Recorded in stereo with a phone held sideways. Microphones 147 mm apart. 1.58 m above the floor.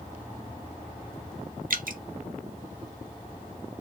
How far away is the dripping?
About 0.6 m.